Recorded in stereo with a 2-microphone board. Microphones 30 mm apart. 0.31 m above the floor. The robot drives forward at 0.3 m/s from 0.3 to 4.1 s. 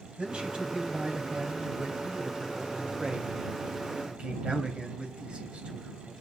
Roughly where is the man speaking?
Right.